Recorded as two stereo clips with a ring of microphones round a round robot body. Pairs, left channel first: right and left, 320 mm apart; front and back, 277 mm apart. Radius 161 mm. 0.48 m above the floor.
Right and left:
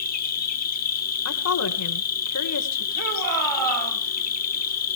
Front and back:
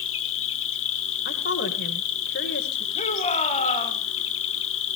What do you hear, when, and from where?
0.0 s an insect: 35° right, 1.2 m
1.2 s a woman speaking: 55° right, 1.6 m
3.0 s a shout: 65° left, 3 m